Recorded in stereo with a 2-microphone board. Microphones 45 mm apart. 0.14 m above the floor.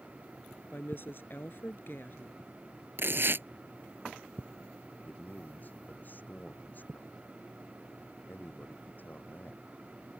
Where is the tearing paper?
55° right (ahead or behind).